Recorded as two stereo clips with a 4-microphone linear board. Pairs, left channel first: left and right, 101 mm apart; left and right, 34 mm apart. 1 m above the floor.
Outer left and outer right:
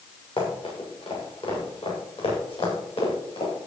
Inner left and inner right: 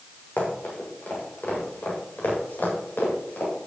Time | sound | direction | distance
0.4 | running footsteps | 70° left (ahead or behind) | 7.5 m